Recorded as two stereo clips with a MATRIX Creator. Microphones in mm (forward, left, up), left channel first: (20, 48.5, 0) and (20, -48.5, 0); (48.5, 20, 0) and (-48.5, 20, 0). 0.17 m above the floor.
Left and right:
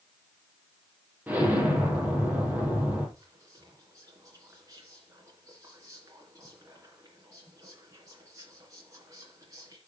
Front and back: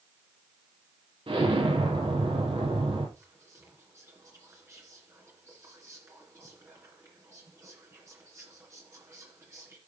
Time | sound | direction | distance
1.3 | an explosion | 160° right | 4 m
3.2 | whispering | 130° right | 2.5 m